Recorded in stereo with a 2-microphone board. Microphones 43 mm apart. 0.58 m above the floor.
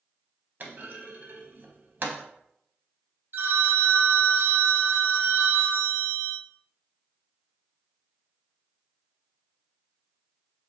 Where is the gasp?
I don't hear a gasp.